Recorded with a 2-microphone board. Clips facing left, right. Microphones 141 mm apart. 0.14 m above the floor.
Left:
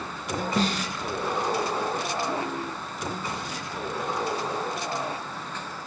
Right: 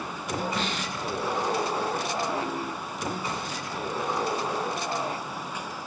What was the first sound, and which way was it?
A snare drum, 40° left (ahead or behind).